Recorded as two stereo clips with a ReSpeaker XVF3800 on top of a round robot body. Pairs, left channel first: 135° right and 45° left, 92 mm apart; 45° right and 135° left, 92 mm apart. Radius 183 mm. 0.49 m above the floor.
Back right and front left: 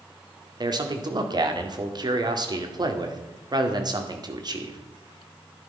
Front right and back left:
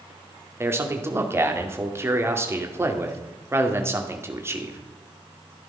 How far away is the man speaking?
About 2 m.